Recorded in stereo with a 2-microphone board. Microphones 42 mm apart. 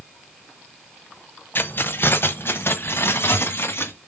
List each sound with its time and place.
1.6 s keys jangling: 55° left (ahead or behind), 1.0 m; by 3.9 s 65° left (ahead or behind), 2.5 m